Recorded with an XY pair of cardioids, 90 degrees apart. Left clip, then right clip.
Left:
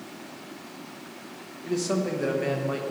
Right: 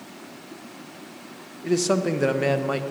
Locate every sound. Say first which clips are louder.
1.6 s a man speaking: right 5 dB; 55° right, 0.7 m